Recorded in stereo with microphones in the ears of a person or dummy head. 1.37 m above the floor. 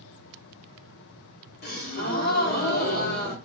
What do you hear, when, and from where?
1.6 s a gasp: 50° left (ahead or behind), 0.8 m